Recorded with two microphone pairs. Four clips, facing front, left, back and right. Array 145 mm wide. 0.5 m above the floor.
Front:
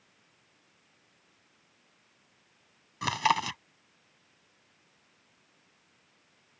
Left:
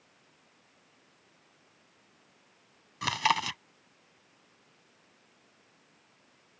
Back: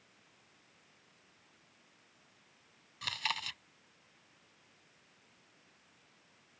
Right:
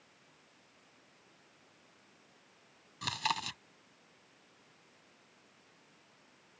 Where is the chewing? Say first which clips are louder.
Left 8 dB, front 14 dB; 20° left.